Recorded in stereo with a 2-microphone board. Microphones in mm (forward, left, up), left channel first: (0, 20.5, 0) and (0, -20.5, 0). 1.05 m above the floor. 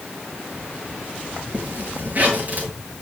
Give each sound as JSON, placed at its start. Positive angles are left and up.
{"t": 1.5, "sound": "a zipper", "side_deg": -35, "distance_m": 7.5}